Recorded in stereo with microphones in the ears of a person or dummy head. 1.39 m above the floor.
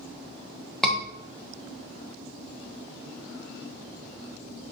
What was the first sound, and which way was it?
A scream, 5° left (ahead or behind).